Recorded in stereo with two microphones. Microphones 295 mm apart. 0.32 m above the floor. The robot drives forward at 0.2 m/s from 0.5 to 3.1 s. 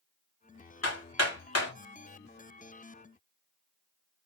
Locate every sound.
0.8 s hammering: 60° left (ahead or behind), 1.3 m